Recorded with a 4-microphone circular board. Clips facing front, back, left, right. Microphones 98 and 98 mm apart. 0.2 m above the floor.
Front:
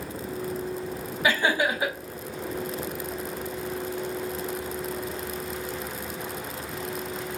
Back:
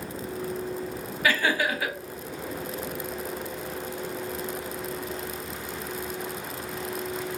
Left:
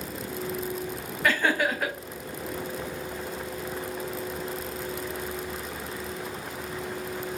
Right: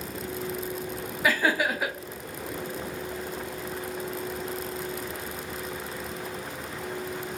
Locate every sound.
1.2 s laughter: 15° right, 1.0 m